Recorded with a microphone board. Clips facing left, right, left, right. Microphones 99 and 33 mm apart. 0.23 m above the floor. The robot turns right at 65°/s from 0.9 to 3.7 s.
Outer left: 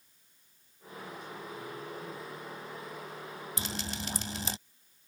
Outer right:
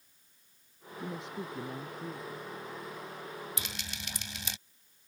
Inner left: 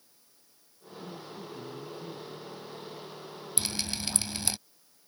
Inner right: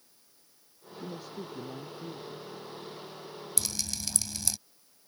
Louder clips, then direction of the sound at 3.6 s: Outer left 5 dB, inner left 3 dB; 30° left (ahead or behind).